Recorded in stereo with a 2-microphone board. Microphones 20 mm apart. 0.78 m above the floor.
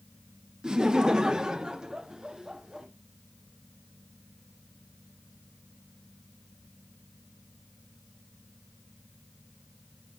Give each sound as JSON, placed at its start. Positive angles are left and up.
{"t": 0.6, "sound": "laughter", "side_deg": -40, "distance_m": 0.8}